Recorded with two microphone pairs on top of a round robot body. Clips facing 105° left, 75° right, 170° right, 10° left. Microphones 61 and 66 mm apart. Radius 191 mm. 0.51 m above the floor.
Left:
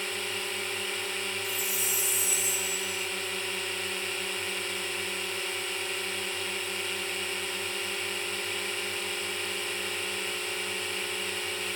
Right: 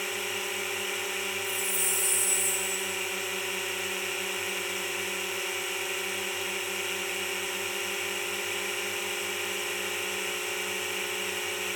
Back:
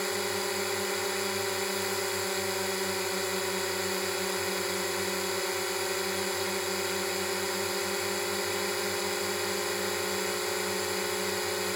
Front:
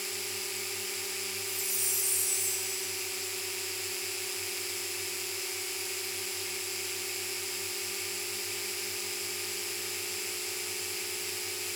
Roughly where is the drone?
Behind.